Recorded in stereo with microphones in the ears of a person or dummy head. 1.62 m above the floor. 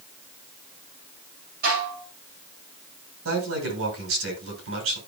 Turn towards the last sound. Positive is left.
turn(degrees=-85)